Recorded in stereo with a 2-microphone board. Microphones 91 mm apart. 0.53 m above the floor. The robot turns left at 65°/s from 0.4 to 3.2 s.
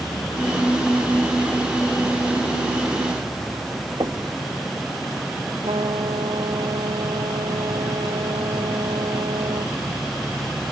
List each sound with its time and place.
4.0 s knocking: 55° right (ahead or behind)
5.6 s a trumpet: 80° right